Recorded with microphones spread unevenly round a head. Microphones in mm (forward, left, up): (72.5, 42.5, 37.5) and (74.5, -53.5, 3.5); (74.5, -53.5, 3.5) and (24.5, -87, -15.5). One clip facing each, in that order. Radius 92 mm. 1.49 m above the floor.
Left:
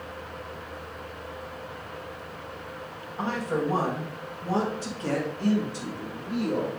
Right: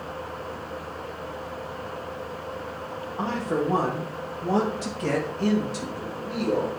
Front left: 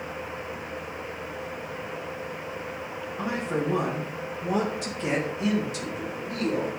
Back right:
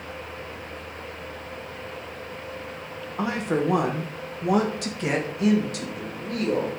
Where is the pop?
No pop in this recording.